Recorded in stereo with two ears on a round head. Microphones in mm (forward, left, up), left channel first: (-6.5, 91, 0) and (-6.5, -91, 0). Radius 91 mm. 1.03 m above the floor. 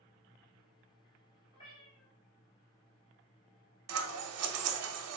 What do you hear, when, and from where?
1.5 s a cat meowing: 25° left (ahead or behind), 2.0 m
3.9 s scissors: 85° right, 0.5 m